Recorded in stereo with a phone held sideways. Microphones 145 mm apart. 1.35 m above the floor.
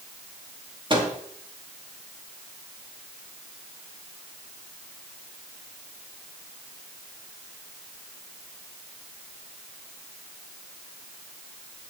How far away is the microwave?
About 2.5 m.